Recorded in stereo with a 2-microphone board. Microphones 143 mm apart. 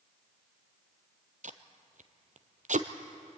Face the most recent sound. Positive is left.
turn(degrees=-70)  # may be behind; listen again after turning